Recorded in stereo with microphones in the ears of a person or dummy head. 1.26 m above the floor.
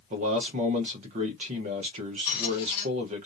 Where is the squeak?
25° left (ahead or behind), 1.3 m.